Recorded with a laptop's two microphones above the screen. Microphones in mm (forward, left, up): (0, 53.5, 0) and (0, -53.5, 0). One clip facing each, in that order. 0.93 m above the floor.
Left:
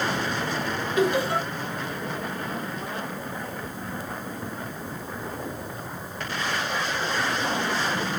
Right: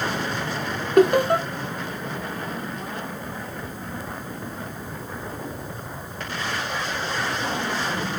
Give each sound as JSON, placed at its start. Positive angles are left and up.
{"t": 1.0, "sound": "laughter", "side_deg": -55, "distance_m": 0.6}